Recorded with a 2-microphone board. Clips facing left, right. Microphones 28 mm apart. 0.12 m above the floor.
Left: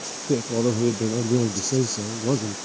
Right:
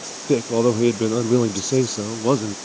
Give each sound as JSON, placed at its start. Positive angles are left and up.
{"t": 0.3, "sound": "a man speaking", "side_deg": -55}